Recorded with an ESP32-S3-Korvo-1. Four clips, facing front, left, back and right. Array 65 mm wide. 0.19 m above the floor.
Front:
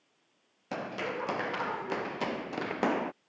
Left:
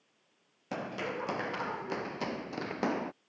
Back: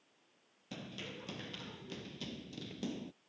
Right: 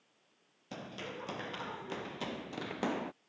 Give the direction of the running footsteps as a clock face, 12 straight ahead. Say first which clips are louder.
Left 8 dB, front 13 dB; 11 o'clock.